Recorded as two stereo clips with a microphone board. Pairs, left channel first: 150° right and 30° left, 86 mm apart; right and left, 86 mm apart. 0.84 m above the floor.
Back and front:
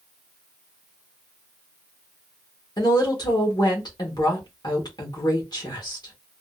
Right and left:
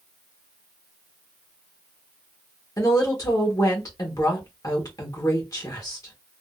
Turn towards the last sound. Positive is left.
turn(degrees=-125)